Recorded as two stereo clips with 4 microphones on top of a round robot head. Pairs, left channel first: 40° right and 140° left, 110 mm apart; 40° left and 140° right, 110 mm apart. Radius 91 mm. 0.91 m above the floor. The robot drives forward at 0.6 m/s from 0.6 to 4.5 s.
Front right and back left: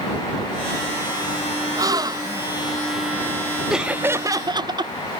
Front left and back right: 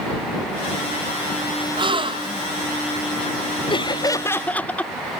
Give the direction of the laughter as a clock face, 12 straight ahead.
10 o'clock.